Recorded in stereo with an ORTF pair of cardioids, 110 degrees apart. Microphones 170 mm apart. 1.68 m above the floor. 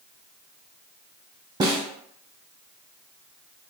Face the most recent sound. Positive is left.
turn(degrees=-25)